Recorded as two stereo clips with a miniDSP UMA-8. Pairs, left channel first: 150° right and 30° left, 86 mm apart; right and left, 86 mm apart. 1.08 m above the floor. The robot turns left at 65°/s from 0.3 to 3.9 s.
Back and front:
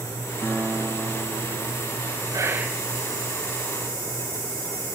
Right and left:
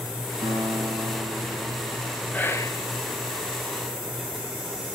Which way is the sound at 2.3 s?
20° right.